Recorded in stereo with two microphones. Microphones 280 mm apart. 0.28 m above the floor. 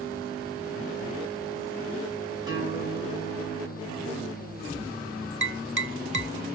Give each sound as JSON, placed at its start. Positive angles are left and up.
{"t": 2.5, "sound": "a guitar", "side_deg": -15, "distance_m": 3.5}
{"t": 5.4, "sound": "tapping", "side_deg": -45, "distance_m": 0.7}